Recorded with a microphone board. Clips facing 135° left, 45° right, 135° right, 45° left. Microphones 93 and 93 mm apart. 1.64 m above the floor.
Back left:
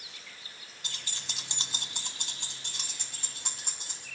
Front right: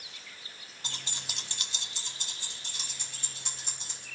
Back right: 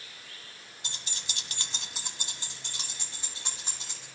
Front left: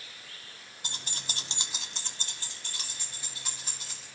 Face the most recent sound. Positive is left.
turn(degrees=165)